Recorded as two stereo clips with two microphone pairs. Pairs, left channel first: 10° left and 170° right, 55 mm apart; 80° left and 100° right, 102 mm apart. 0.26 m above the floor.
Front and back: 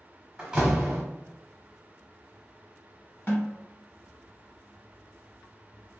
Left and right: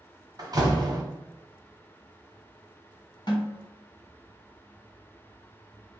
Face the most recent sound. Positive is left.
turn(degrees=50)